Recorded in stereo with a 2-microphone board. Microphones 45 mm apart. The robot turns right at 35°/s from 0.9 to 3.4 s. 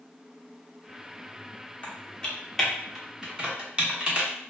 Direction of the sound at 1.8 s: 30° left (ahead or behind).